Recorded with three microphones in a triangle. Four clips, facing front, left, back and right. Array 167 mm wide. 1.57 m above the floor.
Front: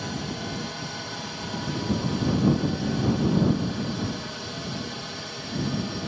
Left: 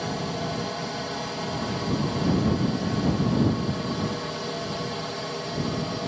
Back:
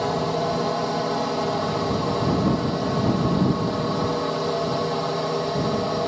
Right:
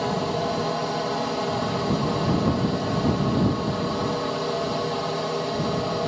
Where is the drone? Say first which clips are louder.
Right 5 dB, back 10 dB; 150° right.